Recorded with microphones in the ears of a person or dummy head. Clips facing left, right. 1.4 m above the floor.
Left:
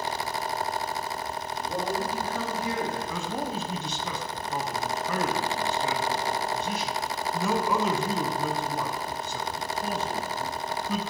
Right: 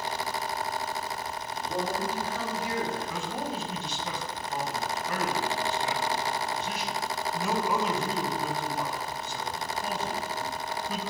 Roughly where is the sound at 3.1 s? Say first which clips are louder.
Left 2 dB; left.